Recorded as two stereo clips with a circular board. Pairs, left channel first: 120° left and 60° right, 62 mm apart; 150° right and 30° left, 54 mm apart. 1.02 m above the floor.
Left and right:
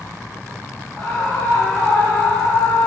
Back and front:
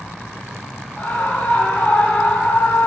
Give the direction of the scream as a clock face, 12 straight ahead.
7 o'clock.